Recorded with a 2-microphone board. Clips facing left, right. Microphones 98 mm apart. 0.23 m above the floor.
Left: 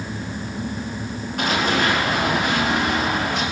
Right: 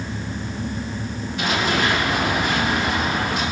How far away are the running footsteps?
About 7.5 m.